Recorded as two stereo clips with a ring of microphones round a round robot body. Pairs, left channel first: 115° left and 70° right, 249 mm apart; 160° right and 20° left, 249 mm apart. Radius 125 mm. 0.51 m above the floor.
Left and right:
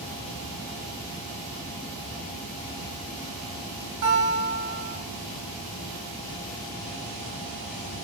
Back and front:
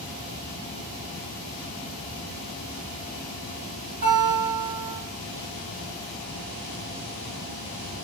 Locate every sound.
4.0 s a guitar: 30° right, 2.5 m